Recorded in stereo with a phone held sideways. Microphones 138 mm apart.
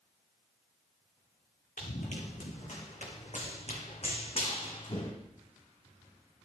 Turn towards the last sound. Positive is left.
turn(degrees=35)  # may be behind; listen again after turning